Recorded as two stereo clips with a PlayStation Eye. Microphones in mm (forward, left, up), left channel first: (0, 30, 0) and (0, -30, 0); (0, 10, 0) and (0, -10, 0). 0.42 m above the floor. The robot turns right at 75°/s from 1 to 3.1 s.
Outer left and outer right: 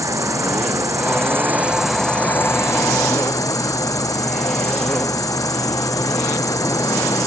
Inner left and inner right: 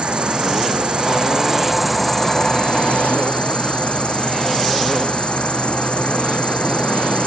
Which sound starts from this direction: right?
An insect, at 0.0 s.